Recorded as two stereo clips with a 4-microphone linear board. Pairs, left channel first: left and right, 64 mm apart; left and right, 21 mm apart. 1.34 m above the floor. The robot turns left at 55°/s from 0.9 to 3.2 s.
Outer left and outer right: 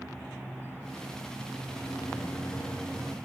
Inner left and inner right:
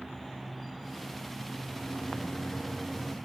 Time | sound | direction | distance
1.7 | a microwave | 85° left | 7 m